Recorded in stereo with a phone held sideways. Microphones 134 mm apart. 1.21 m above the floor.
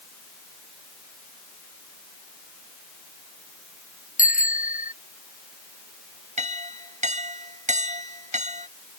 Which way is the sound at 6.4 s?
65° right (ahead or behind).